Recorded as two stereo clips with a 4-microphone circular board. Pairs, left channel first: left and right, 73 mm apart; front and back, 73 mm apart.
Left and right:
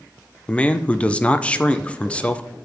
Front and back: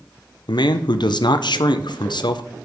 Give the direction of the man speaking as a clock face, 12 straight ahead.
12 o'clock.